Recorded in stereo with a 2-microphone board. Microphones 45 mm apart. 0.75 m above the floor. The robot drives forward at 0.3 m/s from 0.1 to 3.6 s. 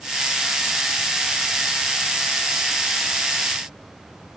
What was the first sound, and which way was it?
Only background noise.